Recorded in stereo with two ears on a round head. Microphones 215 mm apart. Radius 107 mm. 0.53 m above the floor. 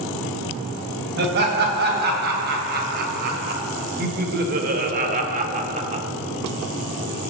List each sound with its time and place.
1.2 s laughter: 45° right (ahead or behind), 3.5 m; by 6.0 s 30° right (ahead or behind), 1.2 m